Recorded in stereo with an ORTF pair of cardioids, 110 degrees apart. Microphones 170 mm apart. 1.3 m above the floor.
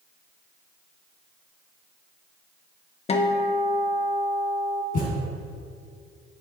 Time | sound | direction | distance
3.1 | a guitar | 35° left | 0.9 m
4.9 | a thud | 55° left | 3.5 m